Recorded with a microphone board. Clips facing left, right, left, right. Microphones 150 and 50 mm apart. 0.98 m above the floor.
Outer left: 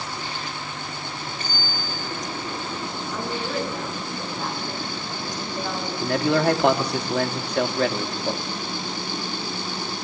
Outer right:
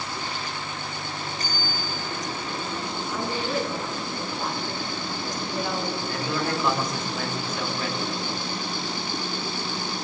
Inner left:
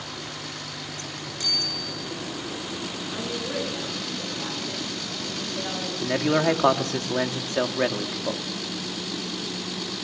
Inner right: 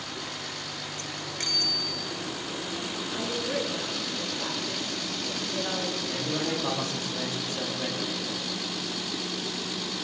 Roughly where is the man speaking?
Left.